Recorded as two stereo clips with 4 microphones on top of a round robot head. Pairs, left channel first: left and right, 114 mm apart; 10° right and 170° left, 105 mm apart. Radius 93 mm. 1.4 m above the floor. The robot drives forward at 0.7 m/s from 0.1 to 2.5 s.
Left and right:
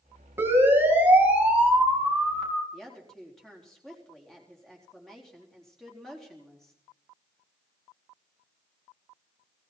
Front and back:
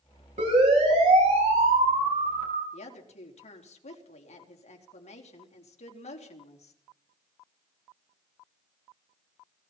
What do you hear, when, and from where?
0.4 s a siren: 160° right, 9.5 m; by 2.6 s straight behind, 11 m
2.7 s a woman speaking: 5° left, 4 m